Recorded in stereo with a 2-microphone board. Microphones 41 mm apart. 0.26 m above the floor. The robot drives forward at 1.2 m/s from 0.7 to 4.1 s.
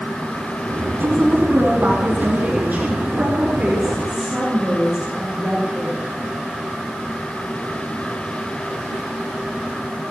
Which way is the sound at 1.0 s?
65° right (ahead or behind).